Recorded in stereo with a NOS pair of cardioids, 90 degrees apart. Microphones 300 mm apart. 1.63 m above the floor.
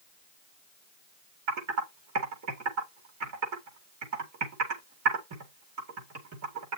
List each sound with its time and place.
1.5 s typing on a keyboard: 65° right, 4.5 m